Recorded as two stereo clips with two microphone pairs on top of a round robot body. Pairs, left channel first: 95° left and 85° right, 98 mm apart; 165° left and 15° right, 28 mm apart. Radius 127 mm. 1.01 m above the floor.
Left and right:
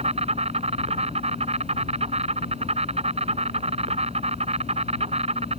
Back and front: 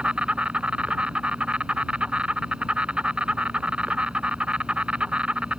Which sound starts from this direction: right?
An insect, at 0.0 s.